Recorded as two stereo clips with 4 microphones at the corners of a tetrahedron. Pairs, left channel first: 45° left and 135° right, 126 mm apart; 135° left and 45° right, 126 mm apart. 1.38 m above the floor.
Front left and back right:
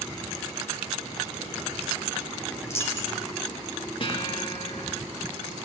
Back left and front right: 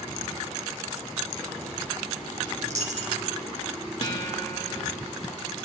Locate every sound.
2.6 s a dropped coin: 20° right, 3 m
4.0 s a guitar: 90° left, 3.5 m